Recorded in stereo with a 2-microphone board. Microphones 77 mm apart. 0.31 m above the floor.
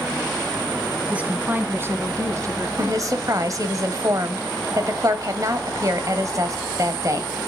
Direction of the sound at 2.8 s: 45° right (ahead or behind).